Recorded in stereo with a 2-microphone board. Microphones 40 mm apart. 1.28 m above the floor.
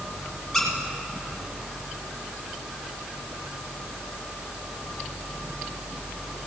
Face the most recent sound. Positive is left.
turn(degrees=10)  # may be behind; listen again after turning